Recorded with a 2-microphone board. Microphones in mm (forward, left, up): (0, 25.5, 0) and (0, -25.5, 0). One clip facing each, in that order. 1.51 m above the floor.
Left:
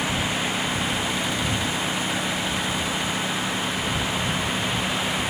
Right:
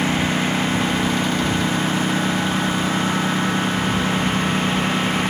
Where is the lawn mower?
30° right (ahead or behind); by 5.3 s 35° right (ahead or behind).